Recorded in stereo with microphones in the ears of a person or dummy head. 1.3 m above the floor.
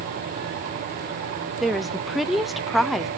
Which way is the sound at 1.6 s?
Centre (ahead or behind).